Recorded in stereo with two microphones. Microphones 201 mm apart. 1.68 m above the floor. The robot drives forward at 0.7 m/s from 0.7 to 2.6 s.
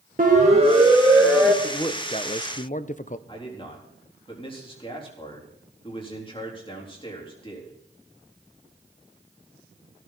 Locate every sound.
0.2 s a siren: 40° right (ahead or behind), 2.5 m; by 1.5 s 5° right (ahead or behind), 3.5 m
1.6 s a man speaking: 20° left (ahead or behind), 1.2 m; by 3.2 s 40° left (ahead or behind), 0.7 m
3.3 s a man speaking: 25° left (ahead or behind), 4 m